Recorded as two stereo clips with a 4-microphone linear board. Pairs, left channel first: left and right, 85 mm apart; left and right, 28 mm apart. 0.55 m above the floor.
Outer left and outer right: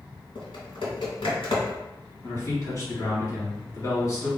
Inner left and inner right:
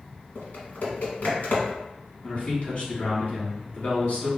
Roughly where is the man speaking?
Left.